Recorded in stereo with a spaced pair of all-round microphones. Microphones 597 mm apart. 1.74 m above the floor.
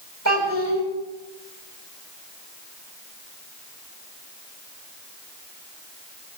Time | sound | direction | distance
0.2 | a child speaking | 25° right (ahead or behind) | 6.5 m